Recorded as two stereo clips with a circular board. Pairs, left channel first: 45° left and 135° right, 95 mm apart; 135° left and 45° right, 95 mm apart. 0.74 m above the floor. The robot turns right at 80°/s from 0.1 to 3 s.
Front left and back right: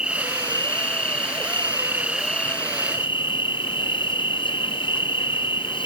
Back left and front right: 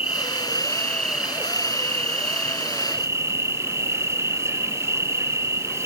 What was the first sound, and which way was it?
An insect, 145° left.